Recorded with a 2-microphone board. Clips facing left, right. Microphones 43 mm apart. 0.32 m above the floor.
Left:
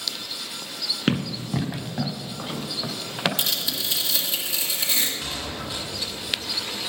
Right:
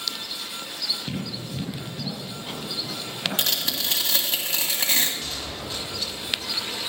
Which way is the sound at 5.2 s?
20° left (ahead or behind).